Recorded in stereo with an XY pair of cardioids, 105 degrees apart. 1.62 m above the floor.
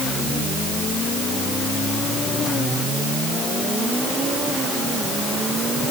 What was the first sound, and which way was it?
Only background noise.